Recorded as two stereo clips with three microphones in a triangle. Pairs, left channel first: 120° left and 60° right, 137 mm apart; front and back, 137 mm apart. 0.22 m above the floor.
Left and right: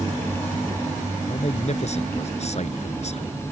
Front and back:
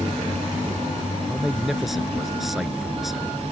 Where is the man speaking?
90° left.